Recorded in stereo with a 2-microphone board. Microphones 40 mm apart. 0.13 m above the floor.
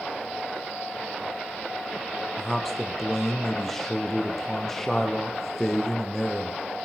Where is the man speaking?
5° left (ahead or behind), 4 m.